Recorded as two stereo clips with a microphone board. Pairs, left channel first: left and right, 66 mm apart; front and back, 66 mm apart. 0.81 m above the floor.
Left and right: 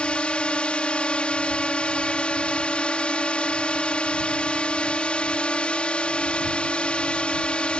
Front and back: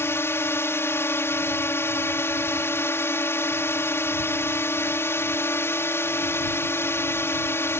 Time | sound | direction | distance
0.0 | a drone | 25° left | ?